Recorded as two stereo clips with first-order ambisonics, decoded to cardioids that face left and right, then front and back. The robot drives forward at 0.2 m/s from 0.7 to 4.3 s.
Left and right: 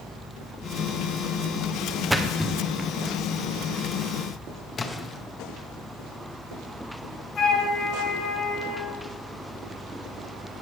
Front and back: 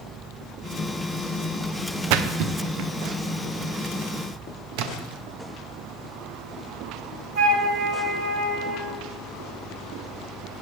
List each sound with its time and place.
2.1 s a splash: straight behind, 0.6 m
4.8 s a splash: 160° left, 0.8 m
7.3 s a flute: 150° left, 3 m